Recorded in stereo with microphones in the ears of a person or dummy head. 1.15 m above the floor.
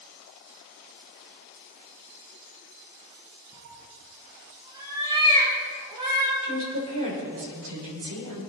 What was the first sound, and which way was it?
A cat meowing, 25° right (ahead or behind).